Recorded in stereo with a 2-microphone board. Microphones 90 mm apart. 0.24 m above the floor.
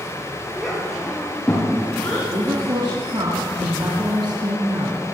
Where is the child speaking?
5° right (ahead or behind), 4 m; by 2.2 s 20° left (ahead or behind), 4 m.